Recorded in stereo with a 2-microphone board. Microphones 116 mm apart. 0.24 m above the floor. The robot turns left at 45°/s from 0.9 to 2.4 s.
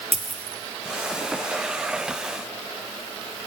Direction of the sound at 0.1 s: 65° right (ahead or behind).